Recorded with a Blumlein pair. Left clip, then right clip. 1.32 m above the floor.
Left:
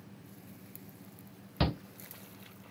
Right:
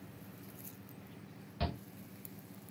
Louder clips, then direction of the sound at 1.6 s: Left 7 dB; 60° left.